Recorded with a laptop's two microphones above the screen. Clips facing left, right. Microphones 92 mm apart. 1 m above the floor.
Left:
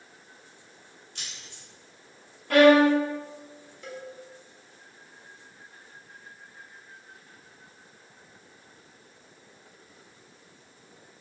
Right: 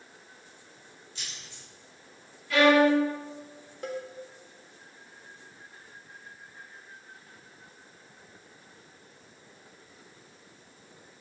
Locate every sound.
1.1 s keys jangling: 60° left (ahead or behind), 2.5 m
2.5 s a violin: 55° left (ahead or behind), 0.9 m
3.8 s a cowbell: 55° right (ahead or behind), 1.4 m